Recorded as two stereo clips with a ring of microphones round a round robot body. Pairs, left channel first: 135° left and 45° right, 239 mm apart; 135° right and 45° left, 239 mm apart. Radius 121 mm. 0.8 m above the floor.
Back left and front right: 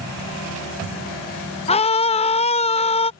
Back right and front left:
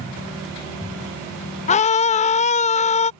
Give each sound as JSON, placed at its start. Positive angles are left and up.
{"t": 1.7, "sound": "a scream", "azimuth_deg": -175}